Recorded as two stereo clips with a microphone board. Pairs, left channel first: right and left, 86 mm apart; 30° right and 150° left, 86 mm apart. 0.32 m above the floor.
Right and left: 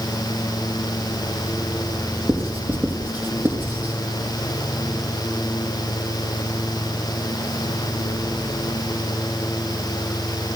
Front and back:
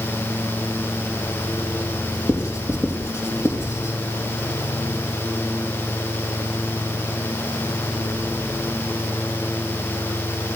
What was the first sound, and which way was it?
Writing, 25° left.